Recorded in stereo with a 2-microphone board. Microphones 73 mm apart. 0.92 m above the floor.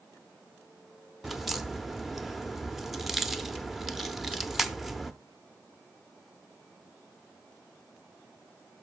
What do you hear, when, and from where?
1.2 s a crack: centre (ahead or behind), 0.6 m